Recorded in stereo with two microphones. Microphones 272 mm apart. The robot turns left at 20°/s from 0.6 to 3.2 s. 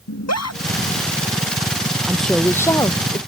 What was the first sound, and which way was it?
A scream, 70° left (ahead or behind).